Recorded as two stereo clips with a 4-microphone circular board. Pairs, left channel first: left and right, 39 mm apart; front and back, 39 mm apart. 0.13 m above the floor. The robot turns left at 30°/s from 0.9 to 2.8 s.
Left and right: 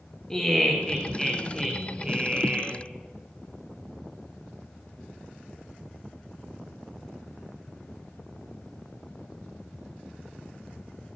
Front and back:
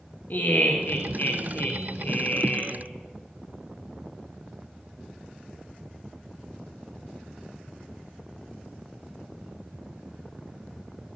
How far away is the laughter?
About 2.5 m.